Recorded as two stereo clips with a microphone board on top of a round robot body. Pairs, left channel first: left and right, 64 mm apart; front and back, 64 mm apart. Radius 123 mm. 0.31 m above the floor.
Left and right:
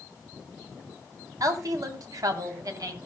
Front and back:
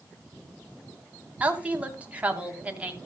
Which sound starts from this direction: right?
A woman speaking, at 1.4 s.